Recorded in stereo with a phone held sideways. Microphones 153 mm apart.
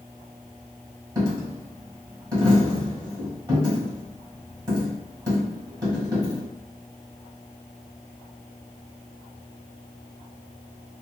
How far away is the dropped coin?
About 1.3 m.